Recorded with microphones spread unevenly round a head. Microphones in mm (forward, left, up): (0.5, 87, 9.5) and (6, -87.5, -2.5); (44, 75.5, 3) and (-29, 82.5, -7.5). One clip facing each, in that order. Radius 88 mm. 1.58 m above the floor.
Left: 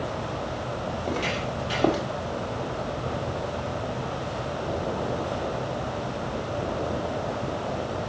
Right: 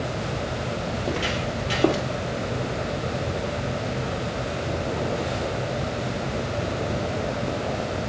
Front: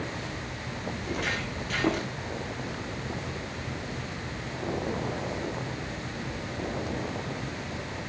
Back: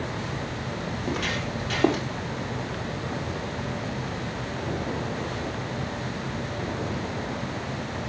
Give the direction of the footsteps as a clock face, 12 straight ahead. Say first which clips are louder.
Even, back 2 dB; 6 o'clock.